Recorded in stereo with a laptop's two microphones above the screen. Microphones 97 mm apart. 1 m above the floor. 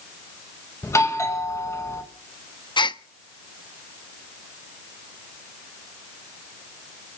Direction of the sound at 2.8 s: 50° left (ahead or behind).